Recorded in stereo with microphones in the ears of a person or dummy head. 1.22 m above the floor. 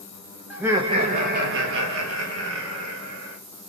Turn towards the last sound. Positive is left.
turn(degrees=-80)